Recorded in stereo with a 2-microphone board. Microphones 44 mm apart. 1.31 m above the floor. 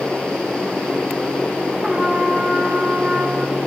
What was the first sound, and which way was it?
A trumpet, 15° right (ahead or behind).